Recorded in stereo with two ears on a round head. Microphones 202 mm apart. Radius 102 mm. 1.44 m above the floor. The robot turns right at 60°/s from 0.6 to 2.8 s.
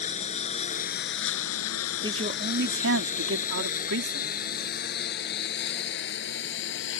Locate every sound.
0.0 s a lawn mower: 30° left (ahead or behind); by 7.0 s 60° left (ahead or behind)
2.0 s a man speaking: 160° right; by 4.4 s 115° right